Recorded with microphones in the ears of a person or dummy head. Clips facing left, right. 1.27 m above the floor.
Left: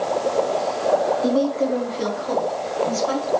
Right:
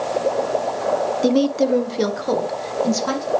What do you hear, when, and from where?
1.2 s a woman speaking: 35° right (ahead or behind), 0.7 m; by 3.3 s 80° right, 2 m